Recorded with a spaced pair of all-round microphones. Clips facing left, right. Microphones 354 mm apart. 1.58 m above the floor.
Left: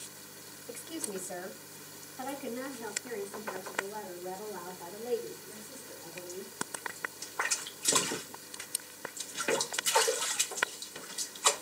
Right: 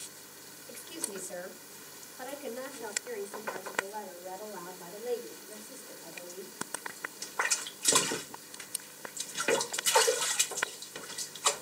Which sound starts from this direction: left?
A woman speaking, at 0.7 s.